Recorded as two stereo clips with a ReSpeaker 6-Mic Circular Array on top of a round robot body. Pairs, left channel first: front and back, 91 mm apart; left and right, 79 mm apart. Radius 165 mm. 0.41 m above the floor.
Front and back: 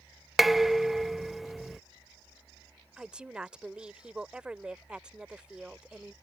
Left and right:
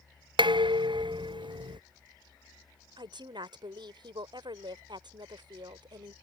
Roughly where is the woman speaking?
Right.